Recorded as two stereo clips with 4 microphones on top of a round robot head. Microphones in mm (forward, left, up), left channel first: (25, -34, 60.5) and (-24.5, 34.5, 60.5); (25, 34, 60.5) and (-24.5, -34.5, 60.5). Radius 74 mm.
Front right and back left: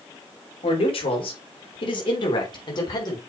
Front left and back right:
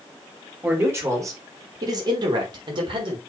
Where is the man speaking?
60° right, 3.5 m; by 3.2 s 100° right, 4 m.